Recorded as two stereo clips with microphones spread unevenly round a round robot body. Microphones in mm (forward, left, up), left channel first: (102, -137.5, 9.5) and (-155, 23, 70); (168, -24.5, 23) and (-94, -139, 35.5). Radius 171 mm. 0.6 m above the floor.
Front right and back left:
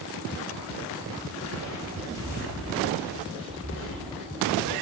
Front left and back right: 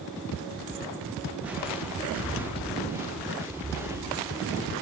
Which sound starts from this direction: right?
Footsteps, at 1.4 s.